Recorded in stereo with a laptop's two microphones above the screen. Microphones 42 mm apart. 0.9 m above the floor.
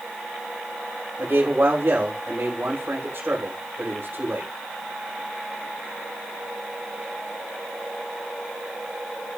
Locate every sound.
1.2 s a man speaking: 80° right, 3 m